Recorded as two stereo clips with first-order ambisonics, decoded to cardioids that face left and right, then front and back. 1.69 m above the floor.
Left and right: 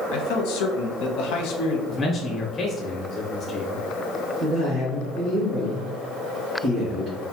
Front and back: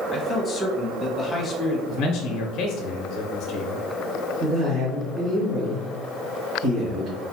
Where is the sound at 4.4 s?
145° right, 1.7 m.